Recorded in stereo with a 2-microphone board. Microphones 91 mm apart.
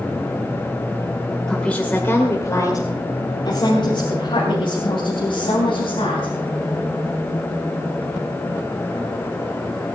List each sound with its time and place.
1.5 s a woman speaking: 5° left (ahead or behind), 1.9 m; by 6.3 s 75° left (ahead or behind), 4.5 m